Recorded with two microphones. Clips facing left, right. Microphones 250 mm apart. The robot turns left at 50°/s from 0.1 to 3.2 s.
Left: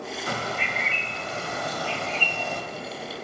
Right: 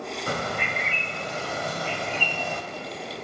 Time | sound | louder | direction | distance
0.3 | a bird | right 2 dB | 70° right | 2.5 m